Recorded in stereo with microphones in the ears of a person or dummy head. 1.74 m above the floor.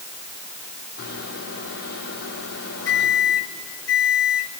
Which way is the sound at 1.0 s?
70° left (ahead or behind).